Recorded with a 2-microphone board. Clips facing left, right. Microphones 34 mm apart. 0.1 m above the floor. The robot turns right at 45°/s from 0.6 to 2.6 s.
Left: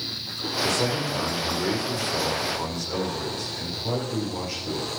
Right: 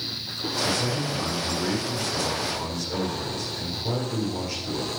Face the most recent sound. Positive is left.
turn(degrees=165)